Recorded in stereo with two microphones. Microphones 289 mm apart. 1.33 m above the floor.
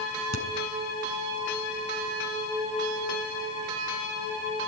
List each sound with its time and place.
0.3 s a crack: 75° left (ahead or behind), 4.5 m